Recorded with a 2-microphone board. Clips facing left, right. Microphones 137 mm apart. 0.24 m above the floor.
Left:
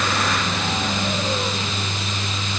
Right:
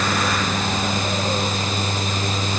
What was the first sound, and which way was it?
Only background noise.